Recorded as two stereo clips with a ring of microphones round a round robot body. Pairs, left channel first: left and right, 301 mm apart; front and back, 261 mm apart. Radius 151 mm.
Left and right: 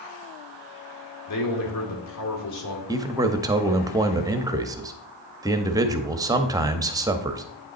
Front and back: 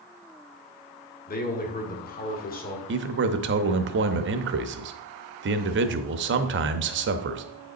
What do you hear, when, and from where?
1.3 s a man speaking: 55° left, 1.9 m
2.9 s a man speaking: 165° right, 0.7 m